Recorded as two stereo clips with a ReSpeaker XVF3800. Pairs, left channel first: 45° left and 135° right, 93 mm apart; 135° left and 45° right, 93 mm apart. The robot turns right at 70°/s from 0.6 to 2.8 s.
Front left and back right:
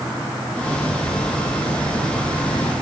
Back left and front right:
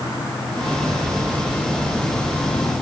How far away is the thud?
No thud in this recording.